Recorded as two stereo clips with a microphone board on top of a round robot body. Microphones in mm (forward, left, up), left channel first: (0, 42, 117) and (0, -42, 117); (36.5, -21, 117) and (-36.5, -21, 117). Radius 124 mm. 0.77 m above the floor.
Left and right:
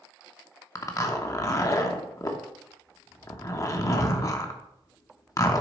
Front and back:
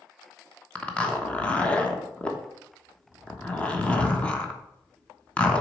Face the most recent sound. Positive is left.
turn(degrees=65)